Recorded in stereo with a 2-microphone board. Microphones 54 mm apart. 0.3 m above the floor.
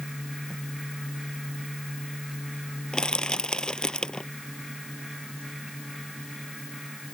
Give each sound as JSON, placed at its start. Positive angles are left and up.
{"t": 2.9, "sound": "crushing", "side_deg": 15}